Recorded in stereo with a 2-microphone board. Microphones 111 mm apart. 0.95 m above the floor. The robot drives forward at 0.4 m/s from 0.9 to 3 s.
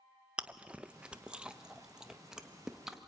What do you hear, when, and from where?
0.4 s chewing: 10° right (ahead or behind), 0.6 m; by 3.1 s 5° right (ahead or behind), 1.3 m